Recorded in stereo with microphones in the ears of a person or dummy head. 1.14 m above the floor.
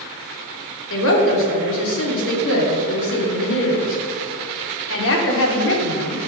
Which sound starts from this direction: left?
A woman speaking, at 0.9 s.